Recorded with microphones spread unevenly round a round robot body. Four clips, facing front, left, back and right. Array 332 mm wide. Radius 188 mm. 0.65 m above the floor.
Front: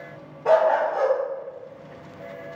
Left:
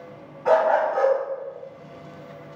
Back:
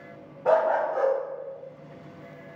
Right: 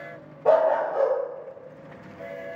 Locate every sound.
0.5 s a dog barking: 120° right, 1.2 m